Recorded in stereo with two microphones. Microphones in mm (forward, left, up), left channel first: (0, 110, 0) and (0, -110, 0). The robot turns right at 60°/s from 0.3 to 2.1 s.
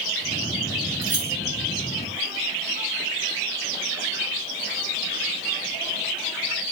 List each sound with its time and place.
1.0 s keys jangling: 45° right (ahead or behind), 7.5 m; by 1.3 s 25° right (ahead or behind), 7.5 m